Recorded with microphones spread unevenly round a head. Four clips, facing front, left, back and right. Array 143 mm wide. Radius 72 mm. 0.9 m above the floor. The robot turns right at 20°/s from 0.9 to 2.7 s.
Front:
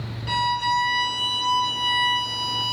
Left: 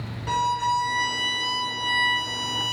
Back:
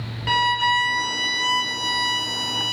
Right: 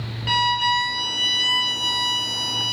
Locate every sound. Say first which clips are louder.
0.3 s a violin: right 1 dB, back 2 dB; straight behind, 0.7 m; by 2.7 s 140° right, 0.7 m